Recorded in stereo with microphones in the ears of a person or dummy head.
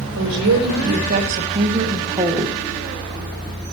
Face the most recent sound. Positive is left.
turn(degrees=-5)  # may be behind; listen again after turning